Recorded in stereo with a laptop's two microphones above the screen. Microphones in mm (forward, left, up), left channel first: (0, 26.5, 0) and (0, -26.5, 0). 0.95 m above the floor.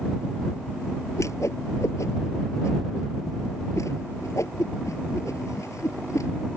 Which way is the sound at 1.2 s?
70° left (ahead or behind).